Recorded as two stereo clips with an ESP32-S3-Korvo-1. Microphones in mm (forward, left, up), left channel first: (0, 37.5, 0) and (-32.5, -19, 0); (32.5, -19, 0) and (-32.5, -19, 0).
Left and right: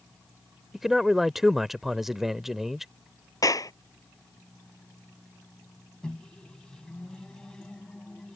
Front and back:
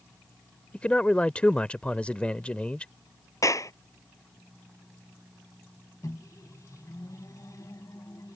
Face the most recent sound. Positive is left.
turn(degrees=-20)